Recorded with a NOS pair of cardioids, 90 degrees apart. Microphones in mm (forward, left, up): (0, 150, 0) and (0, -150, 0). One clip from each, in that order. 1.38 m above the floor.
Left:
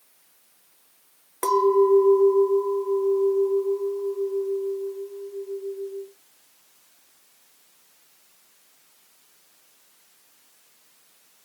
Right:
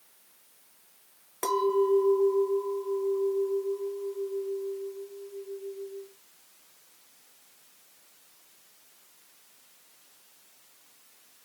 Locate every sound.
1.4 s a clink: 15° left, 1.0 m